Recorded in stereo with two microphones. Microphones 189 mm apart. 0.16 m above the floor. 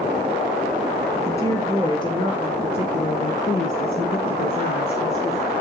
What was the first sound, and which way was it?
A woman speaking, 15° left (ahead or behind).